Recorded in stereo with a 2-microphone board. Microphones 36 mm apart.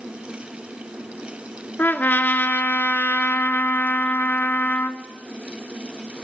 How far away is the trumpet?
About 0.9 m.